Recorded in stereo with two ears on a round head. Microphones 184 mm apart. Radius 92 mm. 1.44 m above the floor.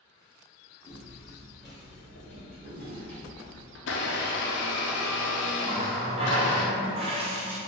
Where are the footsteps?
5° right (ahead or behind), 1.5 m; by 3.6 s 10° left (ahead or behind), 1.6 m.